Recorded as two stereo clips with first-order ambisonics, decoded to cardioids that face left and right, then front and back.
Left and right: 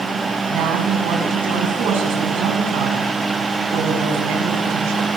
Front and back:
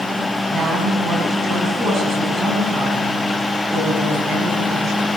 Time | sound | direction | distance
0.5 | a woman speaking | 120° right | 6.5 m